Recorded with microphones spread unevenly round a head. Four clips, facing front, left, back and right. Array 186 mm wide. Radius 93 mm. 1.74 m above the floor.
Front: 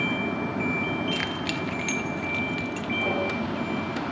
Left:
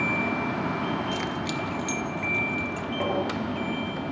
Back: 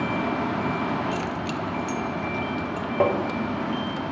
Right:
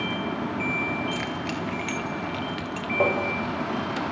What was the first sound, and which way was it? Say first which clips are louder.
Keys jangling: even, back 2 dB; 10° right.